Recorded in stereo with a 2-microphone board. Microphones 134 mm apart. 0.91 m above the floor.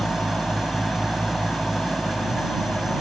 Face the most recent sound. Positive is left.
turn(degrees=0)  # may be behind; listen again after turning